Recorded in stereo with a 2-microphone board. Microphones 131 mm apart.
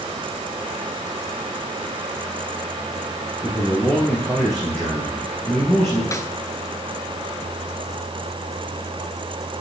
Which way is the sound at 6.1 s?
25° left (ahead or behind).